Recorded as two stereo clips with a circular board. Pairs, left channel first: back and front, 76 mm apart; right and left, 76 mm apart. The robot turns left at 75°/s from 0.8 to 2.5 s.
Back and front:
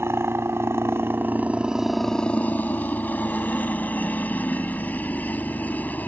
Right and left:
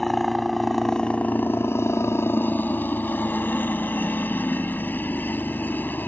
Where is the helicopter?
5° right; by 6.1 s 130° right.